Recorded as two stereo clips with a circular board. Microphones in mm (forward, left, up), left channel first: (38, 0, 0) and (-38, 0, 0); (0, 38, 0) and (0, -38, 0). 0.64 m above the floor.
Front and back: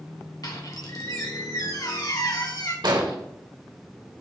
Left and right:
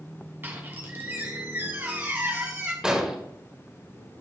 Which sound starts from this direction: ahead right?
A squeak, at 0.4 s.